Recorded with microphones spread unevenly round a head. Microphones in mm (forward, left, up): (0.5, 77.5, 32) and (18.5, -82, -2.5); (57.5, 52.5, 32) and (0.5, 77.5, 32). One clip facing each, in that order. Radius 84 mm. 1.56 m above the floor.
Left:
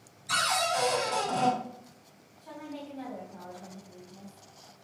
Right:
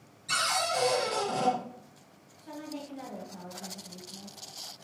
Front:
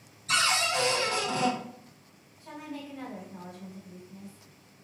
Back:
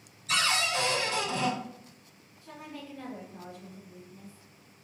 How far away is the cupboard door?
About 1.5 m.